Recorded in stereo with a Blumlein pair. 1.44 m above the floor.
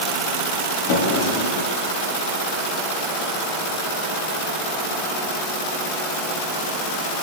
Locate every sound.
0.9 s a drawer: 45° left, 8 m